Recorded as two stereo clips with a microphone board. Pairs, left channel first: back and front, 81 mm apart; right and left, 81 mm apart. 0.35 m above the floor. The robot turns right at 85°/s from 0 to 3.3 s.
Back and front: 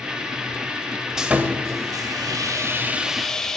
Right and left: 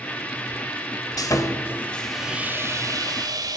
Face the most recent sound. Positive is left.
turn(degrees=100)